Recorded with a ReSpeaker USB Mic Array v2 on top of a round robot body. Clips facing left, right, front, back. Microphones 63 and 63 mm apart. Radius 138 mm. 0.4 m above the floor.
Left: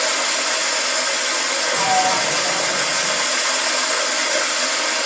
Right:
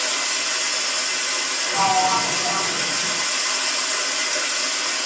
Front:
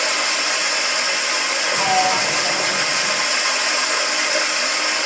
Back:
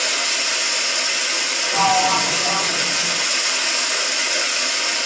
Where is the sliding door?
170° right, 1.6 m.